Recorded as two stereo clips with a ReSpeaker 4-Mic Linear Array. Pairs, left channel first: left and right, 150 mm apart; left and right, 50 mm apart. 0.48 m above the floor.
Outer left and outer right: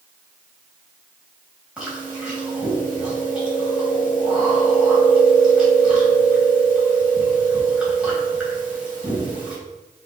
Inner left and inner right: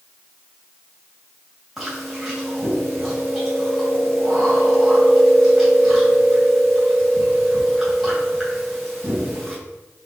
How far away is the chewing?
About 2.5 m.